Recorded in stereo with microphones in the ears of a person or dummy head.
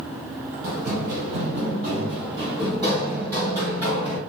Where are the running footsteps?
45° right (ahead or behind), 1.9 m; by 4.2 s 15° right (ahead or behind), 3 m.